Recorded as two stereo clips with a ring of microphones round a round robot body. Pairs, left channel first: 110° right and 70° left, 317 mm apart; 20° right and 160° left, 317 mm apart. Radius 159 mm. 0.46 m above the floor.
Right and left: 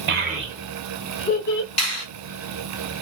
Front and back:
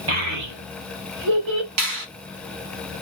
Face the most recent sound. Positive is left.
turn(degrees=175)